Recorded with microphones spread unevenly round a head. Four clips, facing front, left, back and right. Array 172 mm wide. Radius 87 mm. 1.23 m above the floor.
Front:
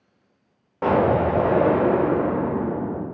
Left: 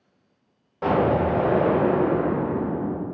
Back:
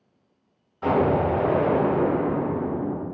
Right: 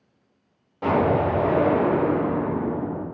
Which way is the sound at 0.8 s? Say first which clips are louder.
Even, front 2 dB; 10° left.